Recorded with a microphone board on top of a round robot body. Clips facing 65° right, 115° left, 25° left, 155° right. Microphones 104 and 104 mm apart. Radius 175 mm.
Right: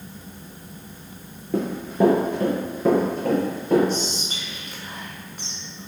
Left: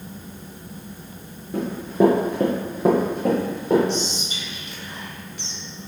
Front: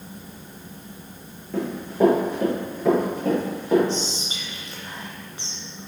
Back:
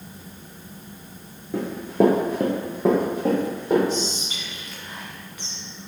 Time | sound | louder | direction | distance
1.5 | running footsteps | left 1 dB, back 3 dB | 75° right | 0.6 m
3.9 | whispering | left 1 dB, back 1 dB | 30° right | 1.4 m